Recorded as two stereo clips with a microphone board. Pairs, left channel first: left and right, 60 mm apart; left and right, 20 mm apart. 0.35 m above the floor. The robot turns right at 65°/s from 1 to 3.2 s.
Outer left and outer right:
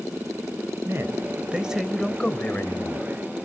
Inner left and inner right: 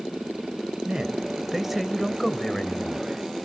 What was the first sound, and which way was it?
A man speaking, 60° right.